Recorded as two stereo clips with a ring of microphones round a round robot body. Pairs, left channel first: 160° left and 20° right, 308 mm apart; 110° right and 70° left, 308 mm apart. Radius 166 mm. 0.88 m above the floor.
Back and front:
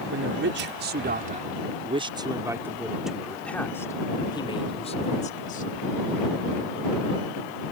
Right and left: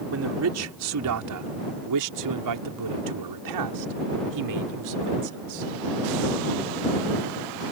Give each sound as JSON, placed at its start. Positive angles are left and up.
{"t": 0.1, "sound": "a man speaking", "azimuth_deg": 25}